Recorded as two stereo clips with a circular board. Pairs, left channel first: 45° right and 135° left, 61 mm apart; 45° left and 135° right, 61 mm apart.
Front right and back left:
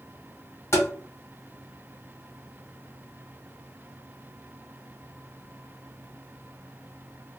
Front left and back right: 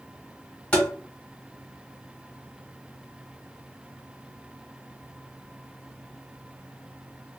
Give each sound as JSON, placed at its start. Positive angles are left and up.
{"t": 0.7, "sound": "tapping", "azimuth_deg": -25, "distance_m": 1.2}